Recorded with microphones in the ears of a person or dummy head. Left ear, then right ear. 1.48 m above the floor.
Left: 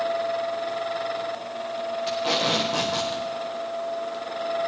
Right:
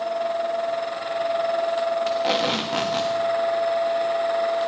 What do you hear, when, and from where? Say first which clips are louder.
2.1 s tape being pulled: right 2 dB; 20° right (ahead or behind), 1.1 m